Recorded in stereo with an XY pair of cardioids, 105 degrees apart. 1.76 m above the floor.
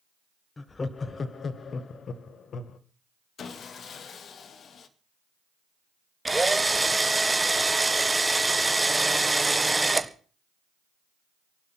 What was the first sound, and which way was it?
Laughter, 25° left.